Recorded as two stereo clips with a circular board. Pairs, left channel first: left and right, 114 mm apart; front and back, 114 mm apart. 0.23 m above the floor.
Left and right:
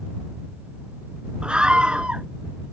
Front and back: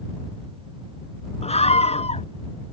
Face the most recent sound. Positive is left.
turn(degrees=-10)